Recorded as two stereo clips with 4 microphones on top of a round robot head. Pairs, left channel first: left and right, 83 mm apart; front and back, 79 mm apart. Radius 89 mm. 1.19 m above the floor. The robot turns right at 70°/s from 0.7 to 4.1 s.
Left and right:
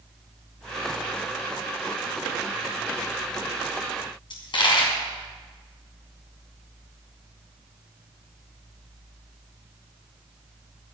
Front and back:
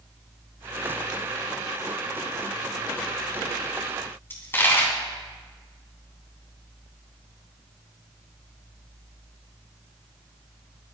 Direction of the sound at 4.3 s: 65° left.